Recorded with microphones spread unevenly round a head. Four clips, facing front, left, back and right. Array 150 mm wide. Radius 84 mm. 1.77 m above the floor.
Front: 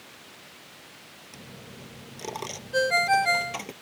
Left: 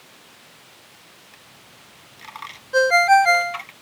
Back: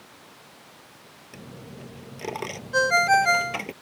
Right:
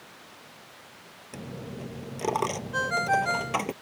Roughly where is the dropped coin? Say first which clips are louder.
Right 12 dB, back 4 dB; right.